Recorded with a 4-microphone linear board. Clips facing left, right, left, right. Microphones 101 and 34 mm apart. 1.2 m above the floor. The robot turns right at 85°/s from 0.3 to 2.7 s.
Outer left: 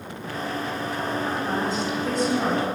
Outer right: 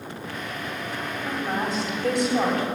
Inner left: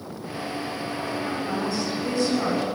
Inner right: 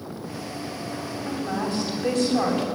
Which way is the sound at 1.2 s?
160° right.